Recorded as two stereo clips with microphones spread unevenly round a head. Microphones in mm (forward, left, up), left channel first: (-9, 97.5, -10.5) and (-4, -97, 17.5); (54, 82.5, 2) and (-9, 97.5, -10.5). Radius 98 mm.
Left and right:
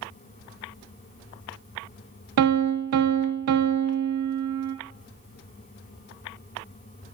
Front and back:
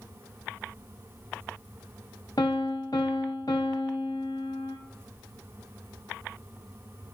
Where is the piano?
85° right, 0.6 m.